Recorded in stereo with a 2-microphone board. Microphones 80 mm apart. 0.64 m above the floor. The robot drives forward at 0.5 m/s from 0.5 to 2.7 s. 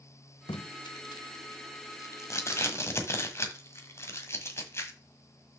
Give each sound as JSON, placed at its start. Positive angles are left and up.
{"t": 0.5, "sound": "tape being pulled", "side_deg": 80, "distance_m": 0.8}